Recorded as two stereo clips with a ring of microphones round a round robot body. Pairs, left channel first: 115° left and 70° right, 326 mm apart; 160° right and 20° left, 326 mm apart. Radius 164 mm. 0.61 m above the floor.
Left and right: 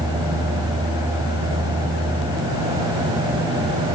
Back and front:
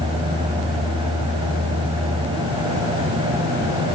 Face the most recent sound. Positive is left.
No sound to turn to.